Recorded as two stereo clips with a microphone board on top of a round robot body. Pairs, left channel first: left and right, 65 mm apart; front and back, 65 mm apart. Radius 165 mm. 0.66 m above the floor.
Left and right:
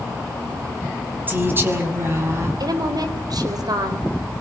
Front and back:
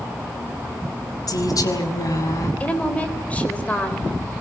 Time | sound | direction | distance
1.3 | a woman speaking | 30° right | 5.5 m
2.6 | a woman speaking | 70° right | 4 m